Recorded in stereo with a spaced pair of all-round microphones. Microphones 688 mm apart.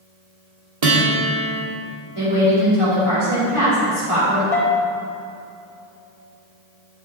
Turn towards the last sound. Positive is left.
turn(degrees=55)  # may be behind; listen again after turning